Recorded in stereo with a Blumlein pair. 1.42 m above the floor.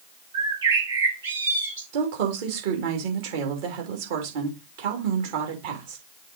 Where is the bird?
65° right, 3.5 m.